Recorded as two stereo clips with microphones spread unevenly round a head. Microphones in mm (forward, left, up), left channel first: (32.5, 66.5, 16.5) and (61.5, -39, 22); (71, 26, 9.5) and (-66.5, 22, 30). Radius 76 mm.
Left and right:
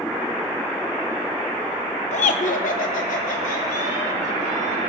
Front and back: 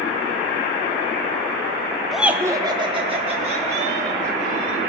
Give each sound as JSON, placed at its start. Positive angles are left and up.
{"t": 2.1, "sound": "laughter", "azimuth_deg": 90, "distance_m": 0.9}